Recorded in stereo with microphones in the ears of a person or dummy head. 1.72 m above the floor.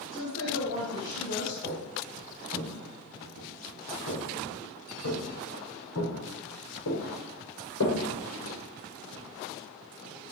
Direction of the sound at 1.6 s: 50° left (ahead or behind).